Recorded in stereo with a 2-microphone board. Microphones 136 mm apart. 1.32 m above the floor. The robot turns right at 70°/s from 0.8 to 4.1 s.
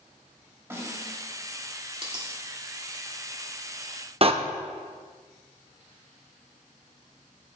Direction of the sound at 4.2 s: 45° right (ahead or behind).